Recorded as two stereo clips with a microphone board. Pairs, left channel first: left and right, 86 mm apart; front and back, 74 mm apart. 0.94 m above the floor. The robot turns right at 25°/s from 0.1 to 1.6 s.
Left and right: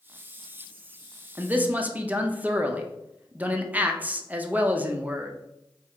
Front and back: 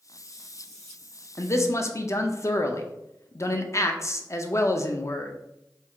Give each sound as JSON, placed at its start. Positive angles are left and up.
{"t": 1.4, "sound": "a man speaking", "azimuth_deg": -30, "distance_m": 0.5}